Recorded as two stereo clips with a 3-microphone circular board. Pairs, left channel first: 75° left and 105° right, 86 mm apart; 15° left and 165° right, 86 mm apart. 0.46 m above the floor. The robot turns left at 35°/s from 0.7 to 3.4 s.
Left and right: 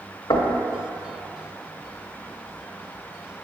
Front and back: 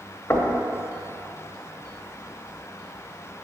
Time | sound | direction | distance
0.3 | knocking | 80° left | 1.2 m